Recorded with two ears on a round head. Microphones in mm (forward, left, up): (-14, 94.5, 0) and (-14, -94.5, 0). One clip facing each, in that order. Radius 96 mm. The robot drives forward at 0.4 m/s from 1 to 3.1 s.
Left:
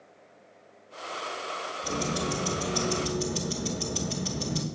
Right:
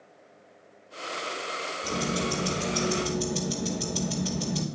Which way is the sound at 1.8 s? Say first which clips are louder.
Right 1 dB; centre (ahead or behind).